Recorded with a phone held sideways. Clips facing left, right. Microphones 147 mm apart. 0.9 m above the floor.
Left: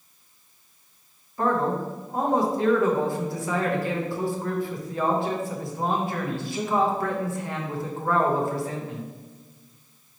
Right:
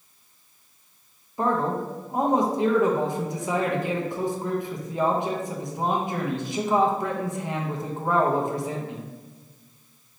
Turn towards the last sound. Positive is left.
turn(degrees=-15)  # may be behind; listen again after turning